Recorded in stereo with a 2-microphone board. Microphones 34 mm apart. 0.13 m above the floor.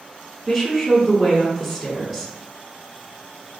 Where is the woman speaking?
5° right (ahead or behind), 1.1 m.